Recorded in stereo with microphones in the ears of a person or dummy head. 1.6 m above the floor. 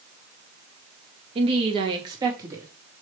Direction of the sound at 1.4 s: 35° right (ahead or behind).